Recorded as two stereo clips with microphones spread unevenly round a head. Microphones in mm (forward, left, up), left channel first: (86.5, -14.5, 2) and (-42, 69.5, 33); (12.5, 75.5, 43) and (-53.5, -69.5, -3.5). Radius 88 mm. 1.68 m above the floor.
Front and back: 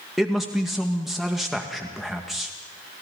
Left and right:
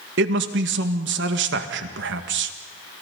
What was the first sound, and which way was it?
A man speaking, 125° right.